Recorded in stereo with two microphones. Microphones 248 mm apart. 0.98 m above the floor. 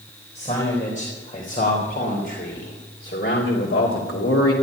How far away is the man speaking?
About 4 m.